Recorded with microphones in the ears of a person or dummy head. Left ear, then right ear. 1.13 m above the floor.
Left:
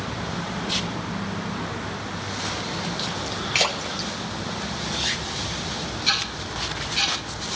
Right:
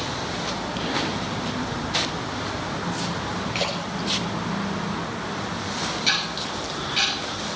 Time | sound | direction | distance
3.5 | a splash | 45° left (ahead or behind) | 1.8 m
6.1 | ticking | 20° right (ahead or behind) | 7 m